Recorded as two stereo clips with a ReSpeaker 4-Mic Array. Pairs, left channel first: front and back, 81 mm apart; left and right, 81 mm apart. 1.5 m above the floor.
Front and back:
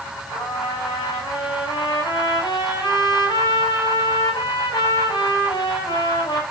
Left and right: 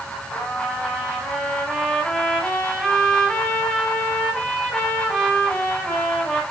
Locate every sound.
0.3 s a trumpet: 10° left, 5.5 m